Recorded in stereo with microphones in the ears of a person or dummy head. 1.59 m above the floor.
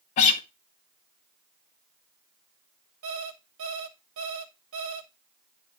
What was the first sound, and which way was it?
A guitar, 25° left (ahead or behind).